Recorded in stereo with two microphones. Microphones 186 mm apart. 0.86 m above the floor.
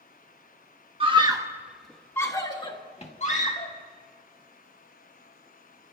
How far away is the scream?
About 1.1 m.